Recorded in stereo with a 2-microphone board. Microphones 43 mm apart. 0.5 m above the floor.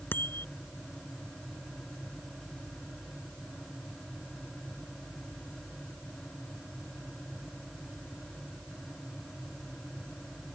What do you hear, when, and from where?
0.1 s a bicycle bell: 50° left (ahead or behind)